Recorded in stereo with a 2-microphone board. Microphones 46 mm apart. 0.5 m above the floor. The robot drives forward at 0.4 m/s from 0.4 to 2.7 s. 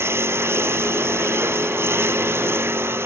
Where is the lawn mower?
65° right (ahead or behind); by 3.1 s 60° right (ahead or behind).